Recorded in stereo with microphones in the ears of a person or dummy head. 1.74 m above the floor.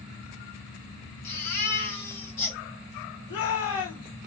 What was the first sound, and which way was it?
A baby crying, 55° left (ahead or behind).